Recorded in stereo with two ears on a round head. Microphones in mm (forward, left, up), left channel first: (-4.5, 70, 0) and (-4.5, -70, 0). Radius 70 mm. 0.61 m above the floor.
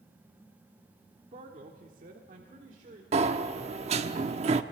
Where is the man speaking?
45° right (ahead or behind), 1.7 m; by 3.0 s 50° right (ahead or behind), 2.5 m.